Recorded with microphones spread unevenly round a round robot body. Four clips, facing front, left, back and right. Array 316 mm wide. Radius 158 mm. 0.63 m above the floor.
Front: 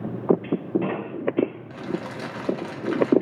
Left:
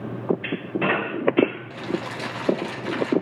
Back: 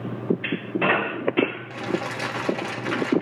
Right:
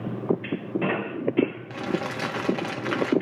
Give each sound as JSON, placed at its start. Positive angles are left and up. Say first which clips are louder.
{"t": 1.7, "sound": "crumpling", "louder": "even, back 3 dB", "azimuth_deg": -95, "distance_m": 1.3}